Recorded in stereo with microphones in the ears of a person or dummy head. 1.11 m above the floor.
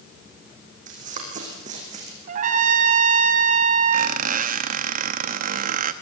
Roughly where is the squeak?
Right.